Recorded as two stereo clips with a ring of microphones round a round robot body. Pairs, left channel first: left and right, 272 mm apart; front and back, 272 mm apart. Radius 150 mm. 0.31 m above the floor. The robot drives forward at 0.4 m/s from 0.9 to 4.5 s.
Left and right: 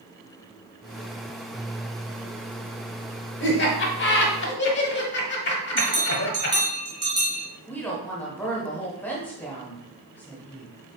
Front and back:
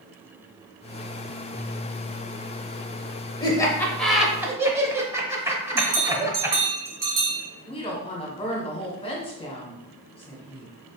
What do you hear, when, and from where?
3.4 s laughter: 65° left, 1.1 m; by 6.6 s 105° left, 1.1 m
5.8 s a bell: 165° right, 1.2 m
7.7 s a woman speaking: 20° left, 1.0 m